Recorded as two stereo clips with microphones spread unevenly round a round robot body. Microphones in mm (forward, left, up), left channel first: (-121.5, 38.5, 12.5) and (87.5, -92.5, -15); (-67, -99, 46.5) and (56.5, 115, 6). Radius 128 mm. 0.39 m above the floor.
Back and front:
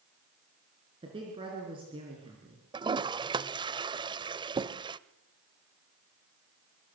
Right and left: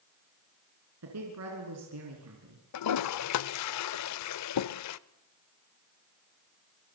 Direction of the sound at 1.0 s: 40° left.